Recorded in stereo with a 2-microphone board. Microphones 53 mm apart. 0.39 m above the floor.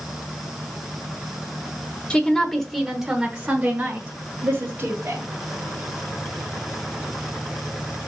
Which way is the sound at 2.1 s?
20° left (ahead or behind).